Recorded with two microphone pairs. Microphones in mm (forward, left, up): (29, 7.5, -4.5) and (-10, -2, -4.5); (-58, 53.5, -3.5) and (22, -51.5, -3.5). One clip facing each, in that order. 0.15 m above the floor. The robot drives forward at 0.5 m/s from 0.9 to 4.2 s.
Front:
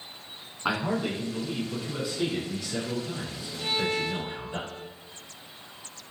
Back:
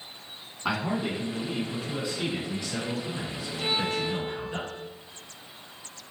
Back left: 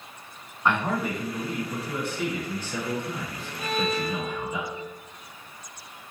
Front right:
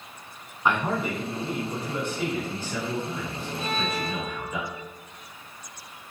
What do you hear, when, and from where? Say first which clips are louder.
0.7 s a man speaking: front 1 dB, even; 15° left, 1.3 m; by 4.6 s 175° left, 1.7 m
3.6 s a violin: even, back left 3 dB; 165° right, 0.6 m; by 4.8 s 175° right, 0.8 m